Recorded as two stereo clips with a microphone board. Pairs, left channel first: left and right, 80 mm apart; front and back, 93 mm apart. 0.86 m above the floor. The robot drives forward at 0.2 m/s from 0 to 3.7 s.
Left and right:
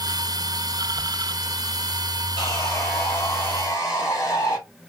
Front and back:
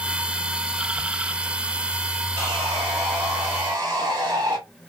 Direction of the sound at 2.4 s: 130° left.